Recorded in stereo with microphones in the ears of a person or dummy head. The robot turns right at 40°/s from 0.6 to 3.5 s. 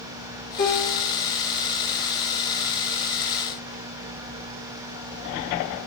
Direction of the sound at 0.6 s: 50° left (ahead or behind).